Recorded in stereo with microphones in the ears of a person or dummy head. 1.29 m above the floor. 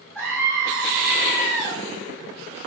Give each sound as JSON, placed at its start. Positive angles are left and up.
{"t": 0.1, "sound": "a scream", "side_deg": 5, "distance_m": 8.0}